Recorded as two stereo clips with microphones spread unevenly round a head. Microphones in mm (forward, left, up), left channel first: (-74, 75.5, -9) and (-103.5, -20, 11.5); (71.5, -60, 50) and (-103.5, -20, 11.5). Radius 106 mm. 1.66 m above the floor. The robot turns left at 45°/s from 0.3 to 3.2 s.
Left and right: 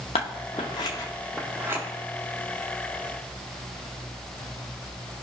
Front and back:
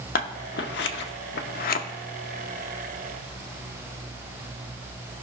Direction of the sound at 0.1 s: 25° left.